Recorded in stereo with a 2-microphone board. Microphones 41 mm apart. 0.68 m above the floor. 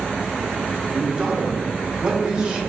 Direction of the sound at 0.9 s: 20° right (ahead or behind).